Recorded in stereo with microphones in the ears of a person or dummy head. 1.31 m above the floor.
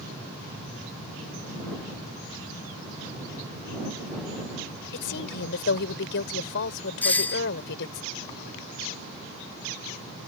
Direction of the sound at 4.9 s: 65° left (ahead or behind).